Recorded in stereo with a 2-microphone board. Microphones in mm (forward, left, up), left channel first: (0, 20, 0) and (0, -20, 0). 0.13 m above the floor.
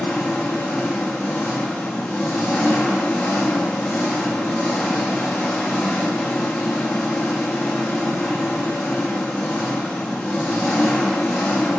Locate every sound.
0.0 s an engine running: 15° left (ahead or behind), 3.5 m